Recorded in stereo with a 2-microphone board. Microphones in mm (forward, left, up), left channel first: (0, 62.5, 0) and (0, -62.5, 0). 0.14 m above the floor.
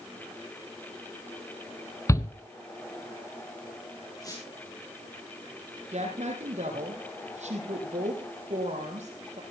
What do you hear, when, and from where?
2.1 s a shout: 25° left (ahead or behind), 1.2 m
4.2 s a squeak: 30° left (ahead or behind), 3.5 m
5.9 s a woman speaking: 70° right (ahead or behind), 5.5 m